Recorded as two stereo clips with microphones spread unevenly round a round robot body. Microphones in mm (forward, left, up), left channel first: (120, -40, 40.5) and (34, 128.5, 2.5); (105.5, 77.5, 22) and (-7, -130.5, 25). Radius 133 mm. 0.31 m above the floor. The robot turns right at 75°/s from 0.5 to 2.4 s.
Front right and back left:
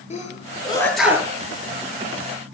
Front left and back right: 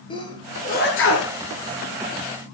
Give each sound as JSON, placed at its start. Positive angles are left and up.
{"t": 0.1, "sound": "a sneeze", "azimuth_deg": -10, "distance_m": 8.0}